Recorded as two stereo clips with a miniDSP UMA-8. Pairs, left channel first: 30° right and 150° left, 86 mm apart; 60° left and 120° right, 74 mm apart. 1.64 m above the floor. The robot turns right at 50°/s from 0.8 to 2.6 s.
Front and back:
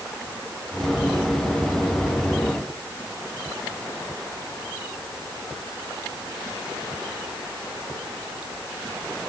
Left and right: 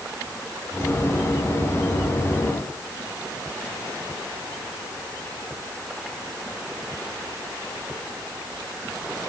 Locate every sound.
Only background noise.